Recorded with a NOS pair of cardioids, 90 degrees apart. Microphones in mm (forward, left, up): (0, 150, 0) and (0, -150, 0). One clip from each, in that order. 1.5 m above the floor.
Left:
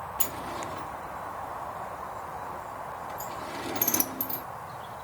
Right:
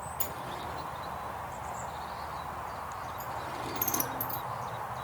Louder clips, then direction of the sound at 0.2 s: Left 4 dB; 40° left.